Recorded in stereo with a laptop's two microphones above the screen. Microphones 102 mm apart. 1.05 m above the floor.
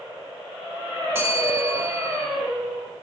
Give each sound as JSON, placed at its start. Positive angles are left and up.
{"t": 1.1, "sound": "a bell", "side_deg": -25, "distance_m": 1.5}